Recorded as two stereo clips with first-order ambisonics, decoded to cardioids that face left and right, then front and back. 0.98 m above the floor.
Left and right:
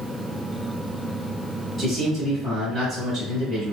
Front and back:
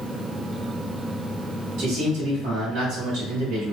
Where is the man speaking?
175° left, 1.9 m.